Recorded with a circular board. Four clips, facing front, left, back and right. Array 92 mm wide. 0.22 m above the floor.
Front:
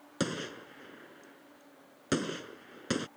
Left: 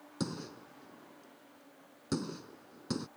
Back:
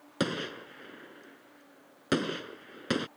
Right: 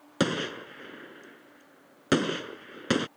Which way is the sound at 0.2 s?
100° right.